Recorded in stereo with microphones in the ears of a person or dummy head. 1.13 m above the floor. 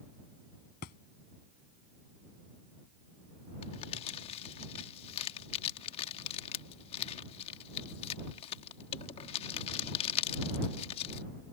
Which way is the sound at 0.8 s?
50° left (ahead or behind).